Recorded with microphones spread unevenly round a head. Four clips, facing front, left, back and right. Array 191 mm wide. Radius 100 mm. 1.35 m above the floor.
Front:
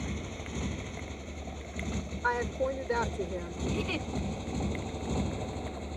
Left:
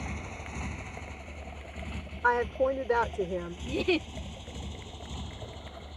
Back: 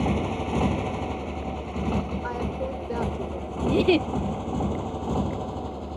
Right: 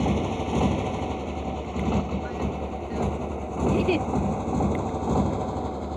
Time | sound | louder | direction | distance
0.0 | a motorcycle | right 16 dB, back 13 dB | 130° right | ?
2.2 | a woman speaking | left 4 dB, back 1 dB | 85° left | ?
3.7 | a giggle | right 6 dB, back 15 dB | 175° right | ?